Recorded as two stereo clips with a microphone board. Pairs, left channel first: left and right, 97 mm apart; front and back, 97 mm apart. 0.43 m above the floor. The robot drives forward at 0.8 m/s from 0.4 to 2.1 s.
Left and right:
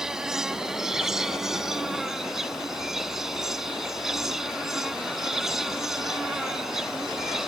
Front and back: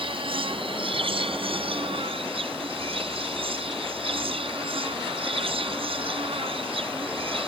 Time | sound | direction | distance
0.0 | an insect | 175° right | ?